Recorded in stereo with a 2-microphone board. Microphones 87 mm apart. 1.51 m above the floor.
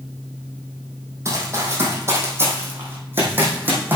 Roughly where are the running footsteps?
Right.